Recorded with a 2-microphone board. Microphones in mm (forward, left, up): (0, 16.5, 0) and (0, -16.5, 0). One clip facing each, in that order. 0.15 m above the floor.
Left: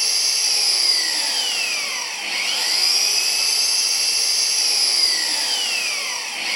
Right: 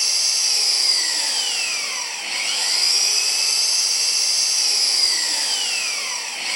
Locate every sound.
0.0 s an engine running: 10° left (ahead or behind), 1.0 m